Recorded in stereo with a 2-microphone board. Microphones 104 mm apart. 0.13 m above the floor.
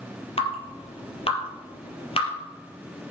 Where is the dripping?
65° left (ahead or behind), 3 m.